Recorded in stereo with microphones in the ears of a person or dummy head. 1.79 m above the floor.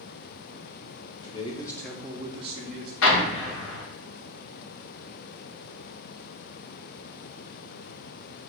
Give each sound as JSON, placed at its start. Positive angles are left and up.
{"t": 1.2, "sound": "a man speaking", "side_deg": 30, "distance_m": 0.9}
{"t": 3.0, "sound": "an explosion", "side_deg": 75, "distance_m": 0.7}